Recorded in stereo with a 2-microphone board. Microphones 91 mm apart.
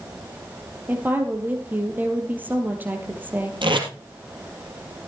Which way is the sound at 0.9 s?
20° right (ahead or behind).